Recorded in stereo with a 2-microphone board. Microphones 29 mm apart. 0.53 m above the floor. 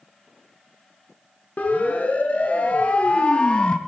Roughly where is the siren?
Left.